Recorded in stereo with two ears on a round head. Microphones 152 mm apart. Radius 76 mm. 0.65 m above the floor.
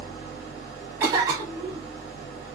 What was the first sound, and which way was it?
An engine running, 25° left (ahead or behind).